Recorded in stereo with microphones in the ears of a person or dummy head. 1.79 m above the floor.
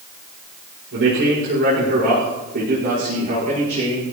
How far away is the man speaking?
About 6 m.